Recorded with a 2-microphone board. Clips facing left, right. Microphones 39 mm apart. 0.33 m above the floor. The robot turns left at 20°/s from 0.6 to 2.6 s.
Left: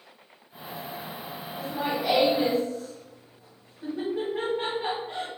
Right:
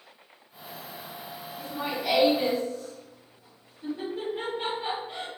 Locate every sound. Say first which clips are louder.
1.6 s laughter: left 3 dB; 45° left (ahead or behind), 1.8 m; by 5.3 s 60° left (ahead or behind), 1.8 m